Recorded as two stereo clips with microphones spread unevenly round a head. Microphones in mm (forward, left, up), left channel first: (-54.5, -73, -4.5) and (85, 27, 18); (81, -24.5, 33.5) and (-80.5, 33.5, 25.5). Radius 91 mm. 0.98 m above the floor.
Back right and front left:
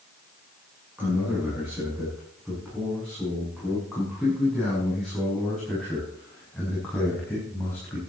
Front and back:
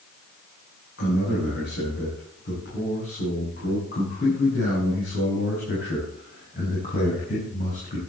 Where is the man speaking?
50° right, 8.5 m; by 8.0 s 70° right, 5 m.